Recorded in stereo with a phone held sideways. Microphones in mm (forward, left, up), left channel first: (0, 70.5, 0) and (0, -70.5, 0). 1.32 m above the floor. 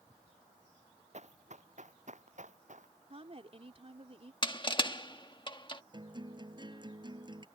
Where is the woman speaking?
45° right (ahead or behind).